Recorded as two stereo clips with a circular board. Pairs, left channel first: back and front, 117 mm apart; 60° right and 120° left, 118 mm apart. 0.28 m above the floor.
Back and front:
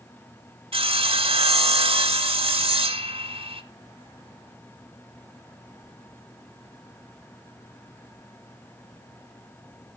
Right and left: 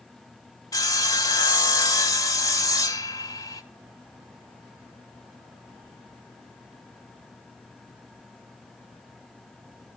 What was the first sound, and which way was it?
Sawing, 10° right.